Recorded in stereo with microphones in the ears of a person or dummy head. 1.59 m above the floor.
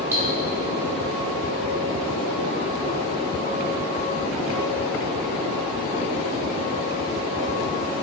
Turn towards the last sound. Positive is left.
turn(degrees=-20)  # may be behind; listen again after turning